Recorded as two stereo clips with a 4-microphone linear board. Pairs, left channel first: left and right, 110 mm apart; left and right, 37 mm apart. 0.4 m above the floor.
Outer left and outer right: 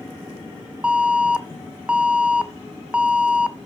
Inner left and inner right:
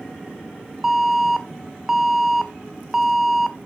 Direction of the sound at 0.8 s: 10° right (ahead or behind).